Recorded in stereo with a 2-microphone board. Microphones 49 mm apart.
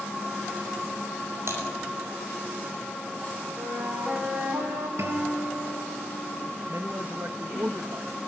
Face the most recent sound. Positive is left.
turn(degrees=-55)  # may be behind; listen again after turning